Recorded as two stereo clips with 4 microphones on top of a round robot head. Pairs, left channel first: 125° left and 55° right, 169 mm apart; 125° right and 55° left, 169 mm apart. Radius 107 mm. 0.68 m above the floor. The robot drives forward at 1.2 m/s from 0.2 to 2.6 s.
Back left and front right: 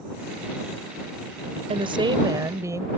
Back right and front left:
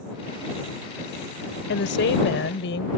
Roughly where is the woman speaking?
Behind right.